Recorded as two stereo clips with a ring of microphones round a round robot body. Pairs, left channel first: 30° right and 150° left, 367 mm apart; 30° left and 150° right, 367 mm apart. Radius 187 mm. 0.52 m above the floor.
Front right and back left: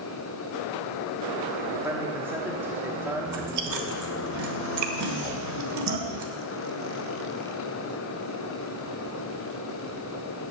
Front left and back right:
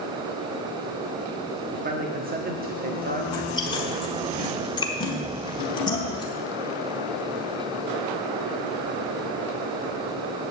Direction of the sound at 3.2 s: 110° left.